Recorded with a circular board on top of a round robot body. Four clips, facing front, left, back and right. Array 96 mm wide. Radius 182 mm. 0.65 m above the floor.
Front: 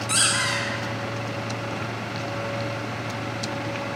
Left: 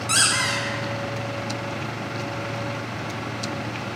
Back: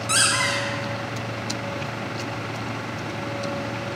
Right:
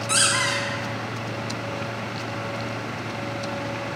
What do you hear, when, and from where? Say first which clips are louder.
0.1 s a squeak: even, back 3 dB; 115° left, 3 m